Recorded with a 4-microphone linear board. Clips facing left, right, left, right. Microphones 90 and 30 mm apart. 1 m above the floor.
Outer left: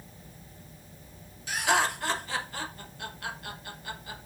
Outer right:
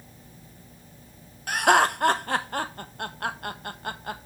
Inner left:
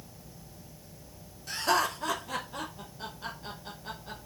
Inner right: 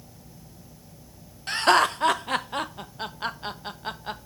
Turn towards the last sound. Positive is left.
turn(degrees=-55)  # may be behind; listen again after turning